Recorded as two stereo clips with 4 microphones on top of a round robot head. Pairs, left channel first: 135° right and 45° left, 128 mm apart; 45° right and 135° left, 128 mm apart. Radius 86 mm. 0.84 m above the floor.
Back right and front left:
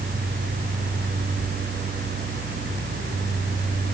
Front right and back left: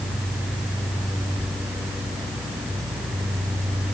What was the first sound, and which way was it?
Only background noise.